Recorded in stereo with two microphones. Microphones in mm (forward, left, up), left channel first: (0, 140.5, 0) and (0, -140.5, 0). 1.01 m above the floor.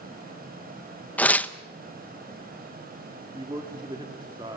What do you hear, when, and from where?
1.2 s tearing paper: 5° left (ahead or behind), 0.8 m
3.3 s a man speaking: 15° right (ahead or behind), 2.0 m